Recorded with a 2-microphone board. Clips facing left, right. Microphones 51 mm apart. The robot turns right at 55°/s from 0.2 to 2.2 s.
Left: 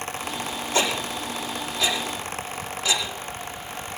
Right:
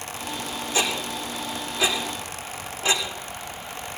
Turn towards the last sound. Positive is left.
turn(degrees=-25)  # may be behind; listen again after turning